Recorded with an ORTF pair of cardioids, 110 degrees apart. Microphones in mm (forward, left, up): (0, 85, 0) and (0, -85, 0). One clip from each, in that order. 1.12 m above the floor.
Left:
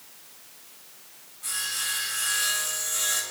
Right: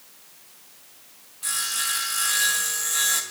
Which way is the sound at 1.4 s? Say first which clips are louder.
Right 3 dB; 60° right.